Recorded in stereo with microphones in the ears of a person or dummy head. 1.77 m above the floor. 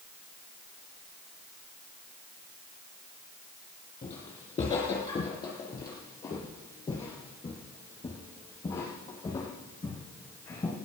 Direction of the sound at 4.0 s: 20° left (ahead or behind).